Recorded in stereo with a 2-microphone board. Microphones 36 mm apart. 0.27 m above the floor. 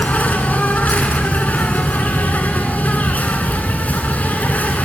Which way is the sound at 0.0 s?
50° left (ahead or behind).